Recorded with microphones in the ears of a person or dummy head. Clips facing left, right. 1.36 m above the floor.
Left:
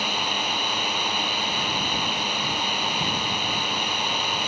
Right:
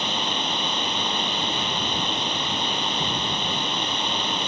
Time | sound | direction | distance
0.0 | a drone | 5° left (ahead or behind) | ?